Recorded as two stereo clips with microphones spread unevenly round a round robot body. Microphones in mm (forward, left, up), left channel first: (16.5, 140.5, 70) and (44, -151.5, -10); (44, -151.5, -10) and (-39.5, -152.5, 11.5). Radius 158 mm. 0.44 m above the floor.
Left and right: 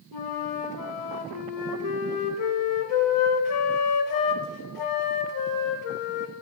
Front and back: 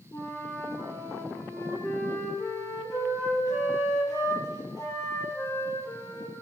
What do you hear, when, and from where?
0.1 s a flute: 70° left, 1.0 m